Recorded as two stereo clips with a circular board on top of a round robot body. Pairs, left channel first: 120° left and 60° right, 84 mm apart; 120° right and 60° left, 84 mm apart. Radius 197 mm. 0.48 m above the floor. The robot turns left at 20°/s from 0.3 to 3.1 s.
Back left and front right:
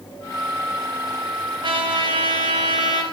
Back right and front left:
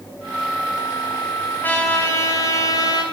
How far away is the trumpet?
About 6 m.